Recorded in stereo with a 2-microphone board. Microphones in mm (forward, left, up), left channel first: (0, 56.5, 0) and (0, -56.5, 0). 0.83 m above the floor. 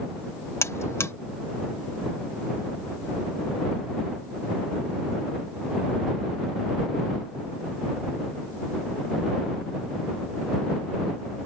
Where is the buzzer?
25° left (ahead or behind).